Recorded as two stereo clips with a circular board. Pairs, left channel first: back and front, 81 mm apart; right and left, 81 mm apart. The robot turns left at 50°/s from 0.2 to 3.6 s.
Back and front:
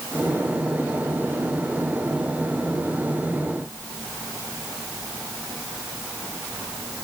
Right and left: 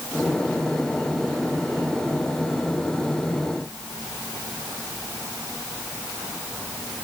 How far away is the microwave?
I don't hear a microwave.